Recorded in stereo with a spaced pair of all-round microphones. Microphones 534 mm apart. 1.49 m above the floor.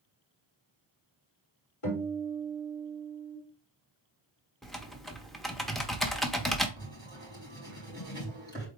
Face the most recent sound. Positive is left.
turn(degrees=10)  # may be behind; listen again after turning